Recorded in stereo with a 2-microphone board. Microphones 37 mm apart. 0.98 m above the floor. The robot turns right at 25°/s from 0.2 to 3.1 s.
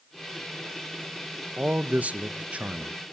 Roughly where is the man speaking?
Right.